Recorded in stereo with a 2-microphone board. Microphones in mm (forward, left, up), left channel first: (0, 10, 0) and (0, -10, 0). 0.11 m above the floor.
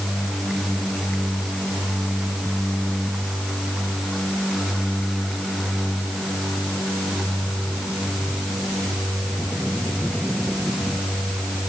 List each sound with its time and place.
Only background noise.